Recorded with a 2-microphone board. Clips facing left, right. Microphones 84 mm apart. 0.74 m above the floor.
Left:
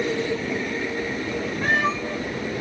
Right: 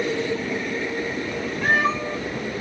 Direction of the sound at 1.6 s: 5° right (ahead or behind).